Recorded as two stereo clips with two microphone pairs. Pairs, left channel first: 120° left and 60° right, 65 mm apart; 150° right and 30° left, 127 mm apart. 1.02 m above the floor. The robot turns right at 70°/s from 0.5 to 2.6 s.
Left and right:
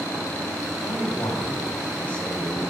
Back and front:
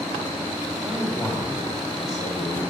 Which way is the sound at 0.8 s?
95° left.